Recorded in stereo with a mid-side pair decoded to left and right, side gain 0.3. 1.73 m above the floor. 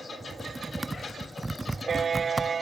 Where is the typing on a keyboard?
25° right, 0.5 m.